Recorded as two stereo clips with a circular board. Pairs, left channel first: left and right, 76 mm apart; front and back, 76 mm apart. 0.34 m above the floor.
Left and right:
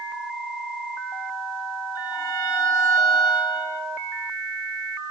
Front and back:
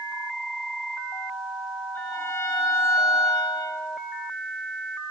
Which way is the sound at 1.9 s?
55° left.